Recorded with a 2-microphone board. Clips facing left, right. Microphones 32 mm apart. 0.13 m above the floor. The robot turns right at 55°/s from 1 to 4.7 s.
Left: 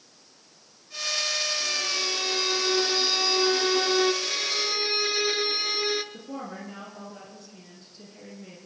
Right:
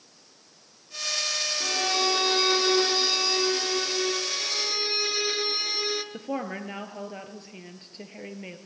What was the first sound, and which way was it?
A violin, 80° right.